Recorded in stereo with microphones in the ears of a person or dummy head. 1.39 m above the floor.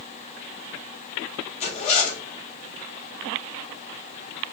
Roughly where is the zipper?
Left.